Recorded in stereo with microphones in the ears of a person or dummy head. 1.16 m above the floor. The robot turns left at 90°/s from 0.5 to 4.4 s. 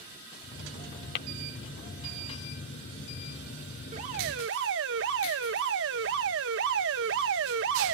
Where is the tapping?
60° left (ahead or behind); by 1.3 s 55° left (ahead or behind).